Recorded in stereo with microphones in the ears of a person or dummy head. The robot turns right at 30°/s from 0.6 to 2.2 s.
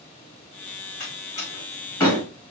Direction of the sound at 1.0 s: 50° left (ahead or behind).